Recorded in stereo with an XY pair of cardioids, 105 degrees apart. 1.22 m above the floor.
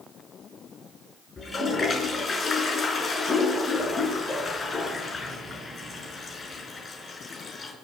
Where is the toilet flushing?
35° left, 5 m.